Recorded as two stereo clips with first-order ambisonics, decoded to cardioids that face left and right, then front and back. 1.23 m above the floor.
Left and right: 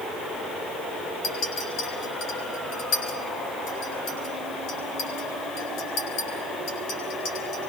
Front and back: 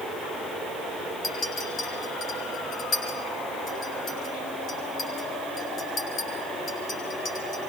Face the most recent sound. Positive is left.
turn(degrees=70)